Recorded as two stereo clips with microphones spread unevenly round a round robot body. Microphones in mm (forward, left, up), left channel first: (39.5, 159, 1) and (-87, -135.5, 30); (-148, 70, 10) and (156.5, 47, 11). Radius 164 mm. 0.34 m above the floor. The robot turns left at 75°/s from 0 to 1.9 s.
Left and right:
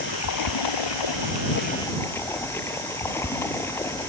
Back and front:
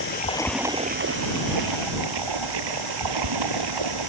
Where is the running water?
125° left; by 4.1 s 15° right.